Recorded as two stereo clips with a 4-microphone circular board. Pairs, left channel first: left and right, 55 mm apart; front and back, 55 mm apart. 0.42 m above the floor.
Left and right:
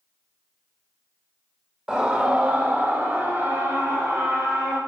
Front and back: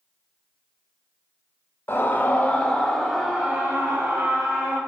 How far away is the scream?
About 1.9 m.